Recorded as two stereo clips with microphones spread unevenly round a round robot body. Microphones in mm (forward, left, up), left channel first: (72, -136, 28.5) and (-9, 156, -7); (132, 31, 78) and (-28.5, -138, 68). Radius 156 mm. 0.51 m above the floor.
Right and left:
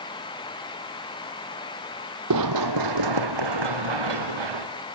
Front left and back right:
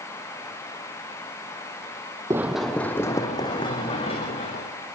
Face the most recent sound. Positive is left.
turn(degrees=115)